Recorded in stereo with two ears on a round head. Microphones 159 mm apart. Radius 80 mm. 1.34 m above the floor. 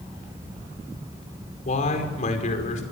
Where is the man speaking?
45° left (ahead or behind), 5.5 m.